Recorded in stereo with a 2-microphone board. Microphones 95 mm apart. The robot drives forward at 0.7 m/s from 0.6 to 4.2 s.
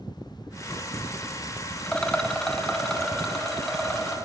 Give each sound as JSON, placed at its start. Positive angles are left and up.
{"t": 1.9, "sound": "a rattle", "side_deg": 10, "distance_m": 0.7}